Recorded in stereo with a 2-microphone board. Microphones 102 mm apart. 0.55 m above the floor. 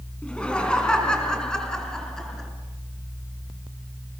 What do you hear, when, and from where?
0.2 s laughter: 10° left (ahead or behind), 4.5 m; by 2.5 s 5° left (ahead or behind), 6 m